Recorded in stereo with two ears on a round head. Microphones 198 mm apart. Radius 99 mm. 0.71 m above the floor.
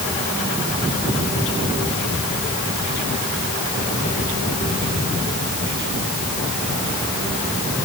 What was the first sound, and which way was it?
Only background noise.